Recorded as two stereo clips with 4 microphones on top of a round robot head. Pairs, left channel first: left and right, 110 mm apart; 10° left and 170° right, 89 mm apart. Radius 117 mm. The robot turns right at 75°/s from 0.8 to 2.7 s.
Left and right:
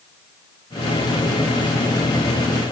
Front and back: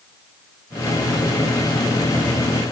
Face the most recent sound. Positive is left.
No sound to turn to.